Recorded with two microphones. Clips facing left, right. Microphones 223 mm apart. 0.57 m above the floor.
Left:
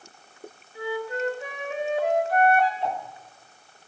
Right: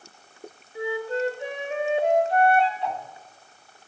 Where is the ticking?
45° left (ahead or behind), 1.7 m.